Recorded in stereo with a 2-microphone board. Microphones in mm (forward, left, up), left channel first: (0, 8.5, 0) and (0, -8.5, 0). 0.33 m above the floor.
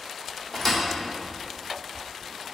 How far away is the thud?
About 0.9 m.